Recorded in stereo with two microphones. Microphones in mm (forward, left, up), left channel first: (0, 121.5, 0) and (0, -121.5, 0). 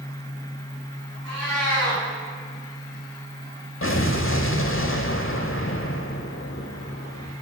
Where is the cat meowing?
75° right (ahead or behind), 3 m.